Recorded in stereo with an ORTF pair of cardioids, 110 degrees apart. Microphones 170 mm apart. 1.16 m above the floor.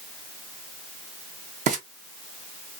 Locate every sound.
1.7 s frying: 50° right, 0.8 m